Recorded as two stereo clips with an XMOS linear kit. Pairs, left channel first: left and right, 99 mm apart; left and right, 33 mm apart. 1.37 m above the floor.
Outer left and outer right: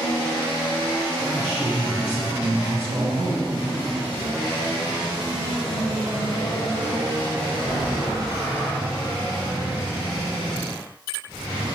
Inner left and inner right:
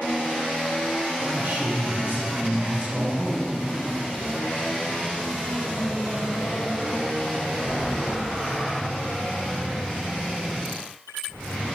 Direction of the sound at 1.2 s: 80° right.